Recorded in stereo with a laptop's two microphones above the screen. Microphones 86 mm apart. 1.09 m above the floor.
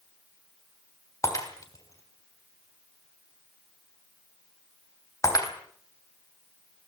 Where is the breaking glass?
40° left (ahead or behind), 3 m.